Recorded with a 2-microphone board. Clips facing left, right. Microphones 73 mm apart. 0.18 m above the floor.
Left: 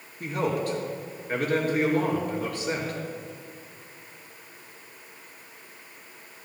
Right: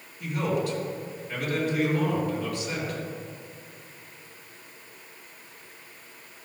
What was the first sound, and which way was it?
A man speaking, 45° left (ahead or behind).